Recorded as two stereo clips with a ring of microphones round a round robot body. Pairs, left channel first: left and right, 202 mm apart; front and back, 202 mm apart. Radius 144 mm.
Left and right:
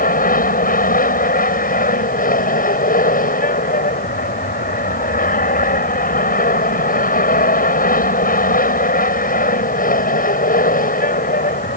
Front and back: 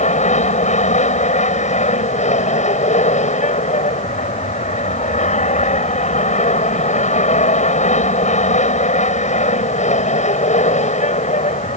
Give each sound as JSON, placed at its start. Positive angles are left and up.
{"t": 0.0, "sound": "an aircraft", "azimuth_deg": 50}